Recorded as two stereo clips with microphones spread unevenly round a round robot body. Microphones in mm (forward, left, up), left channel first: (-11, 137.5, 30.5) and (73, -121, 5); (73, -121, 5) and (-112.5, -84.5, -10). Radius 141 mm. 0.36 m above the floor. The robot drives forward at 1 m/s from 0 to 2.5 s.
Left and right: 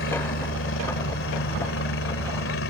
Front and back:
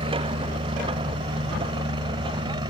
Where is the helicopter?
115° left; by 2.7 s 110° left.